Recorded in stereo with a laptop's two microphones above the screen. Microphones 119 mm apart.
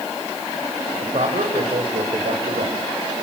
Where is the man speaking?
75° right (ahead or behind), 4 m.